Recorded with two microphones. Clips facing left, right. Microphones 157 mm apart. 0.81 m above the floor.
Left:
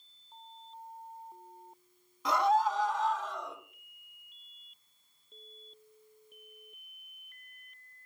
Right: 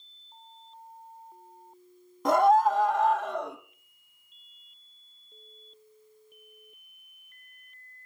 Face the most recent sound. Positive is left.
turn(degrees=-65)  # may be behind; listen again after turning